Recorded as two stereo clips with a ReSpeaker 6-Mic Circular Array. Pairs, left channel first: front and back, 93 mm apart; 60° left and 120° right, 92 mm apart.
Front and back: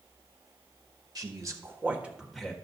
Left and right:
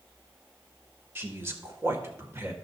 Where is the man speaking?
175° right, 1.5 m; by 2.5 s 80° right, 1.3 m.